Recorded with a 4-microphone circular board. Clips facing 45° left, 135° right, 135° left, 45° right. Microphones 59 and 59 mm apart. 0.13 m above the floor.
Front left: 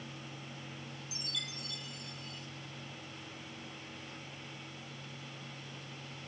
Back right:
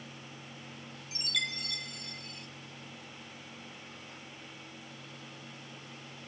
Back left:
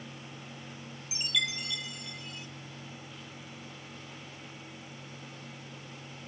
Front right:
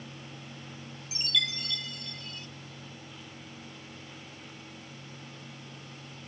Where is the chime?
150° right, 0.5 m.